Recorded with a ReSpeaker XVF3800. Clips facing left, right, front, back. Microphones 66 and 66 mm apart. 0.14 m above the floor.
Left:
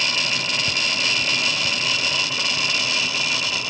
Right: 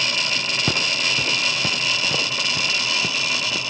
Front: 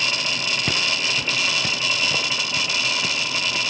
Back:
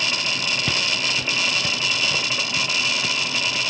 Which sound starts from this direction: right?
Footsteps, at 0.7 s.